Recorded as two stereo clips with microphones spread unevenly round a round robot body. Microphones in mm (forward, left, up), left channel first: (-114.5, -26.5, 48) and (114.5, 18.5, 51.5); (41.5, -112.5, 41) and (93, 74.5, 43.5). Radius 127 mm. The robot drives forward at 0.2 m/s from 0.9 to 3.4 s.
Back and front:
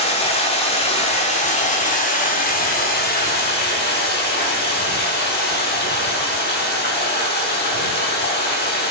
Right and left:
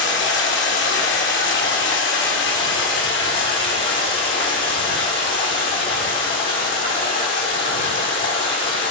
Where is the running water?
105° right, 1.6 m; by 8.9 s 125° right, 1.8 m.